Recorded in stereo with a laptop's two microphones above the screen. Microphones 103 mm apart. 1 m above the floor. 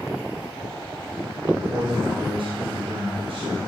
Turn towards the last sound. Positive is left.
turn(degrees=-80)